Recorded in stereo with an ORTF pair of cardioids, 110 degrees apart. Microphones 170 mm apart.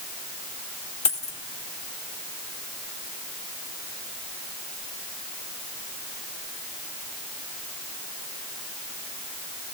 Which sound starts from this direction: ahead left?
A dropped coin, at 1.1 s.